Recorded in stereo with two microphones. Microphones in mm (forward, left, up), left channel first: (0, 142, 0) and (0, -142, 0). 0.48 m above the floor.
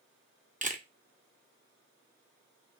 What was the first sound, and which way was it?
A camera shutter, 30° right (ahead or behind).